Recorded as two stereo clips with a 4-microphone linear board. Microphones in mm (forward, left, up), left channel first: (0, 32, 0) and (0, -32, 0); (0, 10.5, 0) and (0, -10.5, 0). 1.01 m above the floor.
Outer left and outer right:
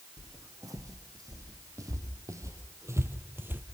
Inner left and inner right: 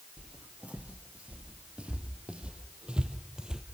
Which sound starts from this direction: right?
Footsteps, at 0.2 s.